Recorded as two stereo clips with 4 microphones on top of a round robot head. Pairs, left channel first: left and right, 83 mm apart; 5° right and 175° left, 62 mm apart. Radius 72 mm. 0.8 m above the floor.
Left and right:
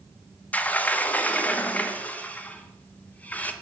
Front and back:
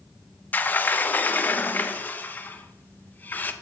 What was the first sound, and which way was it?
A sliding door, 30° left.